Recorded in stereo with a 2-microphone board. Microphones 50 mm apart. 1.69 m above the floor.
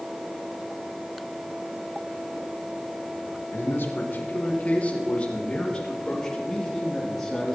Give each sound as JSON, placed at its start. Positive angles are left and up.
{"t": 3.5, "sound": "a man speaking", "side_deg": 55, "distance_m": 1.9}